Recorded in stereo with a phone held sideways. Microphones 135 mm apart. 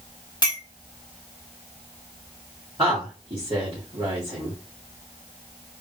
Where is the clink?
30° left (ahead or behind), 1.6 m.